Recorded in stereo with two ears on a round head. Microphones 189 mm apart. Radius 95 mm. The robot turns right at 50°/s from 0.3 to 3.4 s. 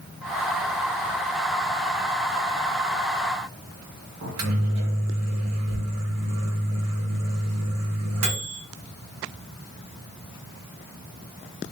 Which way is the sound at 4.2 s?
75° right (ahead or behind).